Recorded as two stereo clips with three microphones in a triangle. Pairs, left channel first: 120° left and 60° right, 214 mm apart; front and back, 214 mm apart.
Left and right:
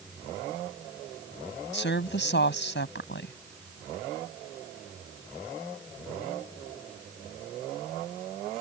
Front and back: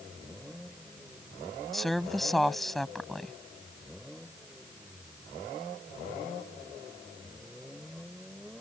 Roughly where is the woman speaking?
Left.